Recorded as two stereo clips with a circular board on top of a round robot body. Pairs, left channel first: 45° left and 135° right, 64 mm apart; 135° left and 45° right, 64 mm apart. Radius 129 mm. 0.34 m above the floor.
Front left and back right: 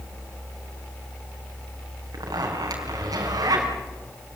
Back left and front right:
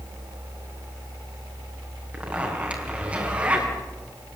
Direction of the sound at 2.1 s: 115° right.